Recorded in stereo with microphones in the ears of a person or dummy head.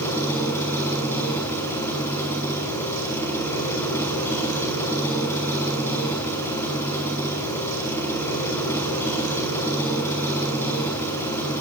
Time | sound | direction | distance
0.0 | an engine running | 15° left (ahead or behind) | 5.5 m